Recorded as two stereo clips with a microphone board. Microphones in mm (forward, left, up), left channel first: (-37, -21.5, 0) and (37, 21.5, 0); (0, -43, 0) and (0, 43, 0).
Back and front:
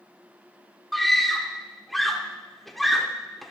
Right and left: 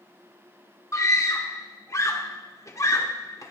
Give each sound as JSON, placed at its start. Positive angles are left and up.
{"t": 0.9, "sound": "a scream", "azimuth_deg": -60, "distance_m": 1.1}